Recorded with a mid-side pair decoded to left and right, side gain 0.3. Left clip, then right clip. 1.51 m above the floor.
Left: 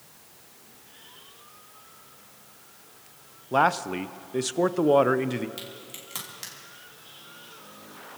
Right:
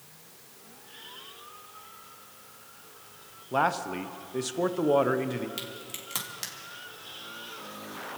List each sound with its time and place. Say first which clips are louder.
3.5 s a man speaking: left 4 dB; 50° left, 0.6 m
5.6 s a crack: right 2 dB; 35° right, 3.5 m